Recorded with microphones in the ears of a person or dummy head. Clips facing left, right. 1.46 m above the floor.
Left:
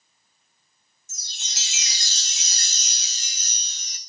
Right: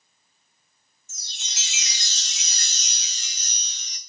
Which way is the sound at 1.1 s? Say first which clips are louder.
Left 1 dB; 25° left (ahead or behind).